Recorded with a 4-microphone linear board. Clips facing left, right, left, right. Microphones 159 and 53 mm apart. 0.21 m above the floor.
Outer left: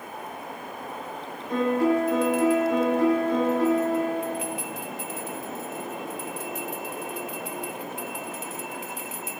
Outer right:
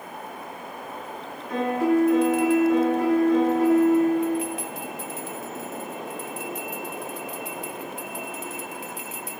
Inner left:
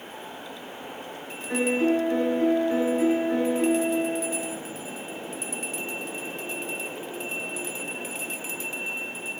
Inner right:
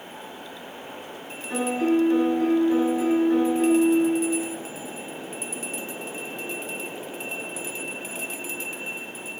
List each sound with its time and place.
1.5 s a piano: 35° left (ahead or behind), 1.7 m